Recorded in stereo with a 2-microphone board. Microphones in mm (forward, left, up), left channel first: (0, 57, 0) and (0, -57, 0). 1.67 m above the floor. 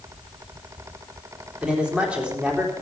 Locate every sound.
1.6 s a man speaking: 10° right (ahead or behind), 4 m